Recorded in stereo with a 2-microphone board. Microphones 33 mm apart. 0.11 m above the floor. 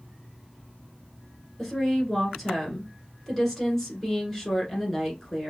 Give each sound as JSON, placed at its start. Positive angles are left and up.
{"t": 1.6, "sound": "a woman speaking", "side_deg": 5, "distance_m": 1.2}